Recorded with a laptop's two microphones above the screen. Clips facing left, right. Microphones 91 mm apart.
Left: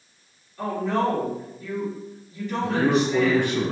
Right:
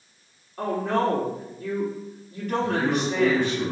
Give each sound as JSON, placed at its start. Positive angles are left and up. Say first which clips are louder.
{"t": 0.6, "sound": "a woman speaking", "louder": "even", "side_deg": -55, "distance_m": 2.5}
{"t": 2.6, "sound": "a man speaking", "louder": "left 5 dB", "side_deg": 60, "distance_m": 0.6}